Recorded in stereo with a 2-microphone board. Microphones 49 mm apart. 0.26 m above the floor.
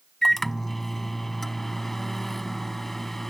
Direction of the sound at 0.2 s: 5° left (ahead or behind).